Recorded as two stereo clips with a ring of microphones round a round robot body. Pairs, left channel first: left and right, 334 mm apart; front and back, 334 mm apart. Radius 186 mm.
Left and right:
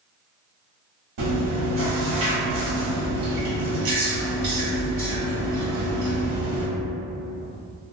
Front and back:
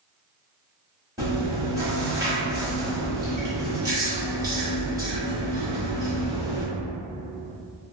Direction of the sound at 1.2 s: 100° right.